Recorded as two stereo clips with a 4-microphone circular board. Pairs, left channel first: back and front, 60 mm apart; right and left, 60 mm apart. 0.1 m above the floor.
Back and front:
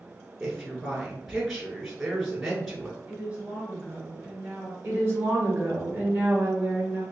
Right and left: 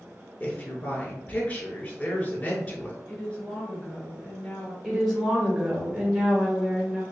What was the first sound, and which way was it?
A woman speaking, 85° right.